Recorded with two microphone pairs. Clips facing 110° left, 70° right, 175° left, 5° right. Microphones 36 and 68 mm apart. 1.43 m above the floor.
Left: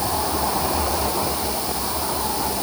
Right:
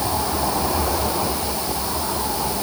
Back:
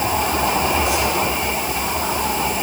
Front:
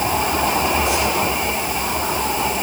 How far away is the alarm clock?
I don't hear an alarm clock.